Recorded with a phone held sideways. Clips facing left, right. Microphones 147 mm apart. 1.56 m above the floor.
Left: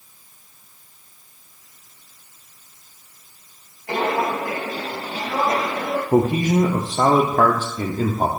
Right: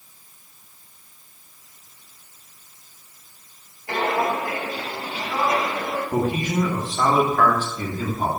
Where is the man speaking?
45° left (ahead or behind), 0.8 m.